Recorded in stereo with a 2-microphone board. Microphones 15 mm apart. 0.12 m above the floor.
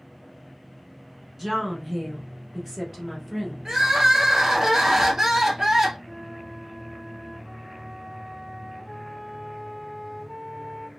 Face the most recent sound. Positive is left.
turn(degrees=-30)  # may be behind; listen again after turning